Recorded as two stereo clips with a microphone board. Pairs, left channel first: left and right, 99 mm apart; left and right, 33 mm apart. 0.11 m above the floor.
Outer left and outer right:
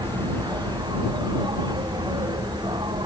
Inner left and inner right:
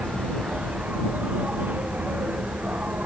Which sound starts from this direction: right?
An insect, at 0.0 s.